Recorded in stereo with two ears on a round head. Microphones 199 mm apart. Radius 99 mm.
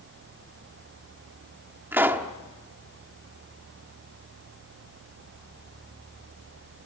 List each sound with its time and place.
1.9 s a pop: 10° right (ahead or behind), 1.1 m